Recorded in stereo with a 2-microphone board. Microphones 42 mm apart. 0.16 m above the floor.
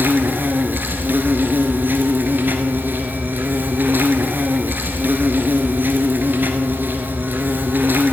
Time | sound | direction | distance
0.0 | an insect | 50° right (ahead or behind) | 1.3 m